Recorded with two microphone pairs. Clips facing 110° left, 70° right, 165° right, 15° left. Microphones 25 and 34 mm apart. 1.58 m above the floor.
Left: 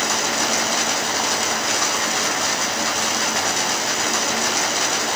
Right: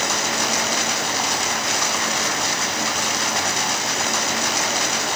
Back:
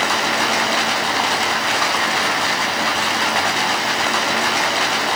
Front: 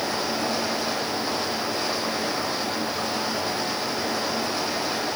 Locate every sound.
0.0 s running water: 155° right, 7 m